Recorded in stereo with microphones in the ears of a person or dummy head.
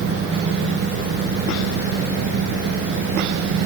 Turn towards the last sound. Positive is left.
No sound to turn to.